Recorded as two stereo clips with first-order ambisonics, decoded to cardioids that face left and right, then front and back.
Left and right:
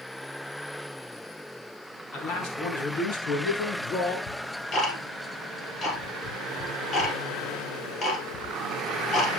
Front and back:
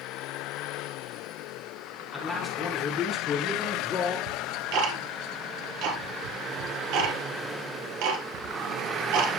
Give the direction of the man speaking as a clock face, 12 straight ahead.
9 o'clock.